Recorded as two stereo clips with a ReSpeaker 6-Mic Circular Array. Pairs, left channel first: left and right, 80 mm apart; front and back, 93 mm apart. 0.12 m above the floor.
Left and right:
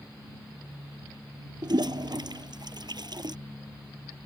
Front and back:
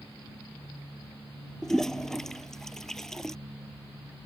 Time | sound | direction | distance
1.6 | a toilet flushing | 85° right | ?